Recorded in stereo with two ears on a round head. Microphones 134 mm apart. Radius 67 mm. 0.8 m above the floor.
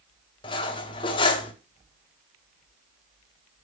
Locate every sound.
0.4 s cutlery clinking: 30° left (ahead or behind), 0.8 m